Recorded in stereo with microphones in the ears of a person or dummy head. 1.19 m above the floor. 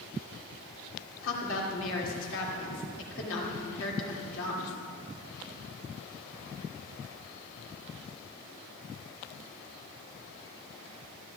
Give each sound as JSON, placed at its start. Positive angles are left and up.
{"t": 1.2, "sound": "a woman speaking", "side_deg": 70, "distance_m": 3.0}